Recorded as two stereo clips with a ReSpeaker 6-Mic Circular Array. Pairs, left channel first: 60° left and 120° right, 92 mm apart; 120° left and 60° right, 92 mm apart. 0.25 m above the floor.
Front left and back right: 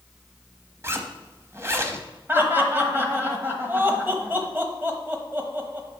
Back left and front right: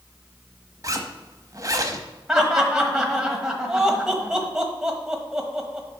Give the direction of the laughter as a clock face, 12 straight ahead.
4 o'clock.